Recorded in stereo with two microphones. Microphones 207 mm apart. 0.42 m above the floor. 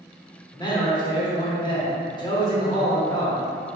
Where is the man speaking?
20° left (ahead or behind), 0.8 m.